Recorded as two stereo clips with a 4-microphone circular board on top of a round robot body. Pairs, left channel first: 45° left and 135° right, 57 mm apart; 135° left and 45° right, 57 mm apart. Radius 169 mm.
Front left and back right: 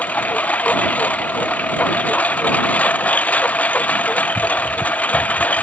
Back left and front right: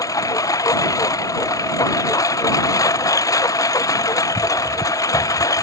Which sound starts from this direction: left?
A lawn mower, at 0.0 s.